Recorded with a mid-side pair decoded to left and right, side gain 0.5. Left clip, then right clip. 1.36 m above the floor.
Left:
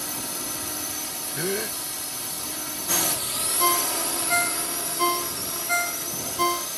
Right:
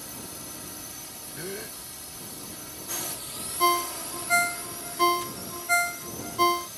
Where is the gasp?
55° left.